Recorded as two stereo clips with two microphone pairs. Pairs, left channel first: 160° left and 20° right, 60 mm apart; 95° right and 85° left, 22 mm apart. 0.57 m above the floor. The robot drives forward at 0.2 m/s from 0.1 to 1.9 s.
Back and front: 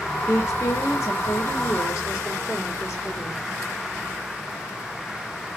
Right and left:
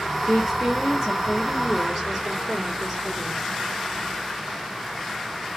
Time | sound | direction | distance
0.3 | a woman speaking | 175° left | 1.5 m